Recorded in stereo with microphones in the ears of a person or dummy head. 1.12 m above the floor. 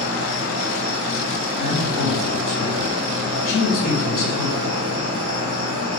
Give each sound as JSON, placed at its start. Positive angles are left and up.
{"t": 0.0, "sound": "an insect", "side_deg": -20, "distance_m": 1.4}
{"t": 1.6, "sound": "a man speaking", "side_deg": 45, "distance_m": 1.9}